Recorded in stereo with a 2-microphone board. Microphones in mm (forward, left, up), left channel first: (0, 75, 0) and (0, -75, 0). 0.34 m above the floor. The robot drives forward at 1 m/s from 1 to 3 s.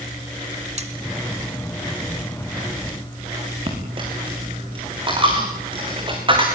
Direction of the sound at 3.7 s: 35° right (ahead or behind).